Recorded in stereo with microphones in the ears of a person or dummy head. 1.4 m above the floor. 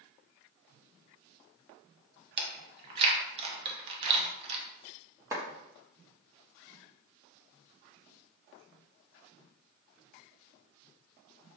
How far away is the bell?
No bell in this recording.